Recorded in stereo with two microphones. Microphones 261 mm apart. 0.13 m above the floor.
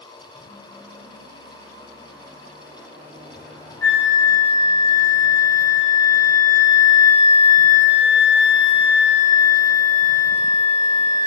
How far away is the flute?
About 1.1 m.